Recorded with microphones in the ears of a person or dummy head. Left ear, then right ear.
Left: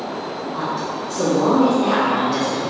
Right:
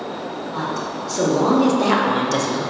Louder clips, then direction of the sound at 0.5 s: Left 1 dB; 45° right (ahead or behind).